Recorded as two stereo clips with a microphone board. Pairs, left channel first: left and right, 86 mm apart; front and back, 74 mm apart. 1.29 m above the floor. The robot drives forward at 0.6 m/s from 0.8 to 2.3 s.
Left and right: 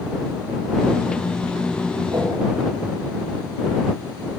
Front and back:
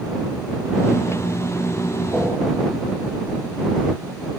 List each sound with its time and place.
2.1 s a whoosh: 75° right, 2.5 m; by 2.3 s 80° right, 2.5 m